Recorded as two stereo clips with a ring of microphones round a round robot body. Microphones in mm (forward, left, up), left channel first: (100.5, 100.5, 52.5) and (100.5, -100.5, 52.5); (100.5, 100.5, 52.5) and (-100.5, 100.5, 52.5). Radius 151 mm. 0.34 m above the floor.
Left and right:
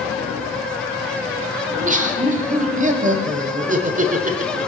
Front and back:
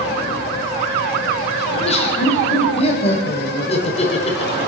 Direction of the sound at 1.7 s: 50° right.